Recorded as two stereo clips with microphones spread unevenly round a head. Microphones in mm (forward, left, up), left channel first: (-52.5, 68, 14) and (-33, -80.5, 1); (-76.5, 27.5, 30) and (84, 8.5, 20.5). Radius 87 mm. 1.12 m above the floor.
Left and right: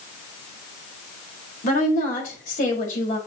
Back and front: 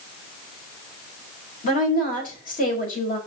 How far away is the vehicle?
No vehicle in this recording.